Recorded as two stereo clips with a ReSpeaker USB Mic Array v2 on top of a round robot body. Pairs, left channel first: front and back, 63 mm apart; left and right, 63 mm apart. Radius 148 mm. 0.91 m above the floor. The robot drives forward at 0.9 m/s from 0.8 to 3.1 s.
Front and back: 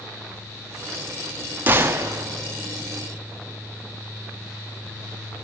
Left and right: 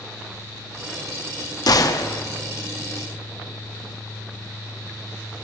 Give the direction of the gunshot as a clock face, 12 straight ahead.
8 o'clock.